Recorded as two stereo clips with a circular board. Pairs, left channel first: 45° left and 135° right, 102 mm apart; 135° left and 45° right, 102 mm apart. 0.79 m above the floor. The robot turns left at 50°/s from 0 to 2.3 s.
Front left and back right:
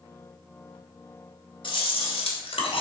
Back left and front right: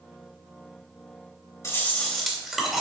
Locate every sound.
1.6 s chewing: 75° left, 2.5 m; by 2.8 s 45° left, 2.5 m